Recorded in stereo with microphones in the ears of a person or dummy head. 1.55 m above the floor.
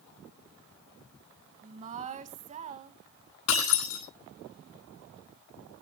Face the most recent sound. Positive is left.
turn(degrees=75)  # may be behind; listen again after turning